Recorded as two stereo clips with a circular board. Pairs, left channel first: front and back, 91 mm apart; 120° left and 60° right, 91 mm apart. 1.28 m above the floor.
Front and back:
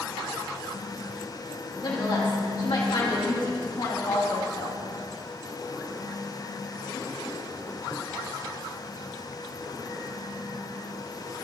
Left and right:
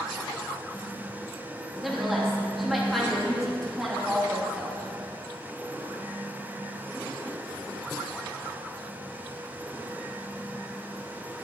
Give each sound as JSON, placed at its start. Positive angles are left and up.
{"t": 1.8, "sound": "a woman speaking", "azimuth_deg": 30, "distance_m": 2.5}